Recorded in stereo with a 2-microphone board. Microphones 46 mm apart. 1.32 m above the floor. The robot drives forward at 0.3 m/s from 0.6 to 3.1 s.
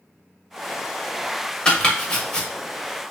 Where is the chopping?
20° left (ahead or behind), 1.1 m.